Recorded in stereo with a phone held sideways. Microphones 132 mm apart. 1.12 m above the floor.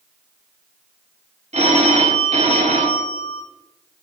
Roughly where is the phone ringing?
Right.